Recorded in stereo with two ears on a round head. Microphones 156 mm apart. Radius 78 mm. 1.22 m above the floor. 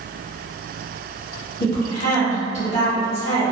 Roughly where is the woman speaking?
Left.